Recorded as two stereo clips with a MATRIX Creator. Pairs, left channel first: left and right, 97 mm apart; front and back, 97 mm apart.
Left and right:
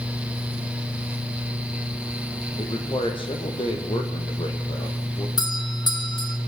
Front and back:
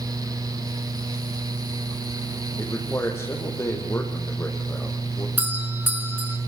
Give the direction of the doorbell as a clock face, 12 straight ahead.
8 o'clock.